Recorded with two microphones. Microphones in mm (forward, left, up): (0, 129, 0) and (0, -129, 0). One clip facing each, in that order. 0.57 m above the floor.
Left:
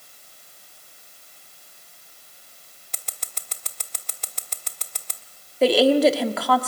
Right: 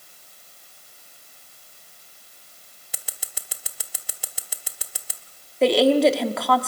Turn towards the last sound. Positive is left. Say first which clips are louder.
# even
turn(degrees=0)  # may be behind; listen again after turning